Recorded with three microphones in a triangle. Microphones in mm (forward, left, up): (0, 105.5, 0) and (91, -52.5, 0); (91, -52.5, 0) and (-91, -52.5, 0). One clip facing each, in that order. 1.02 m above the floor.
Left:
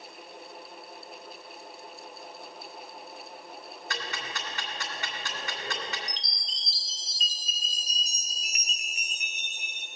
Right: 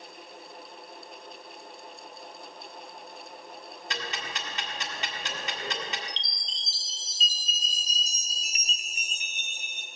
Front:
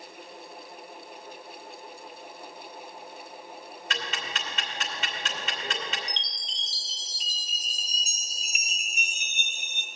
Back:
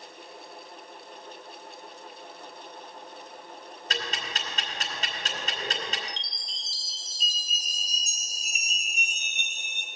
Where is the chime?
5° left, 1.0 m.